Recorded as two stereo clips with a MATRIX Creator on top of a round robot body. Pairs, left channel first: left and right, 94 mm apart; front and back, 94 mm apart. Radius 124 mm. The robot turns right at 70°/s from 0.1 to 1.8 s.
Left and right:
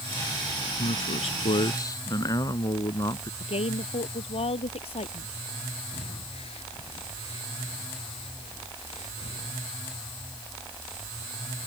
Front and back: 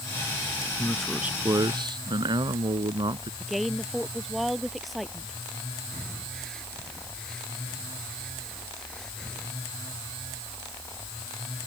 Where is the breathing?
85° left.